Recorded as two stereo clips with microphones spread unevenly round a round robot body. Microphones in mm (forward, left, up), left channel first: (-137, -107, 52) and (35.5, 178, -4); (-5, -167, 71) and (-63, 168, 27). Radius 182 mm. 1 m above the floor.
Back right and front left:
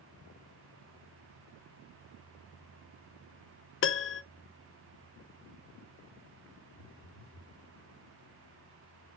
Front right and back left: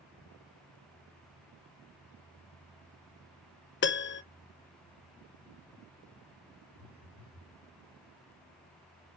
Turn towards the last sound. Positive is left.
turn(degrees=180)